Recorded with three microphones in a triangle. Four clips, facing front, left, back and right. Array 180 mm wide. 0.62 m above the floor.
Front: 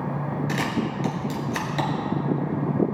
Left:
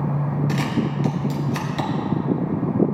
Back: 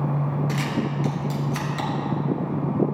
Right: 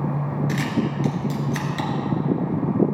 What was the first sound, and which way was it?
A camera shutter, 10° left.